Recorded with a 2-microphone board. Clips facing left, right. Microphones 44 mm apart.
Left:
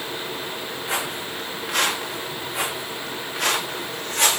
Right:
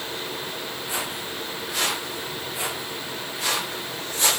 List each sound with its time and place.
0.9 s footsteps: 80° left, 6.5 m